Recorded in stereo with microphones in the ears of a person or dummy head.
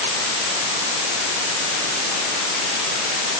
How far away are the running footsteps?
No running footsteps in this recording.